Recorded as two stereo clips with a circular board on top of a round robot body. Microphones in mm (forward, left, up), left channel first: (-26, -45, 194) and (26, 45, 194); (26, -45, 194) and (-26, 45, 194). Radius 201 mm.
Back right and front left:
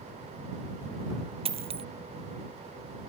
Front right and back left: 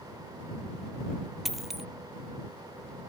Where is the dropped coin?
30° left.